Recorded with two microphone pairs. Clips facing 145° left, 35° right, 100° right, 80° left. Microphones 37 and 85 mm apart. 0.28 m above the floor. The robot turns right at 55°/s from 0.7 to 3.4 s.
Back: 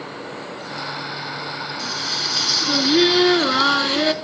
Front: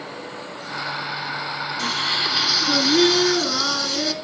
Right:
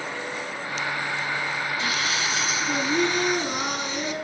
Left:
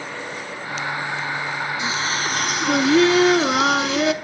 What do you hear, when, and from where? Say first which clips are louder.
1.8 s singing: front 5 dB, left 3 dB; 5° left, 0.7 m; by 4.1 s 90° left, 0.7 m